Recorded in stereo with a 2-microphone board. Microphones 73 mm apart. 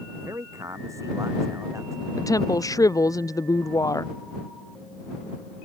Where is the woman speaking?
55° left (ahead or behind).